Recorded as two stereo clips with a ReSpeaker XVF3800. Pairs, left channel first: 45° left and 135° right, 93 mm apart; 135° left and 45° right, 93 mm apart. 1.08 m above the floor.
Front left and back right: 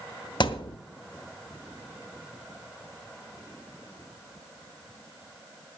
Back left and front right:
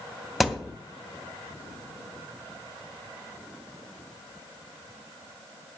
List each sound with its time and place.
0.4 s a thud: 45° left, 1.1 m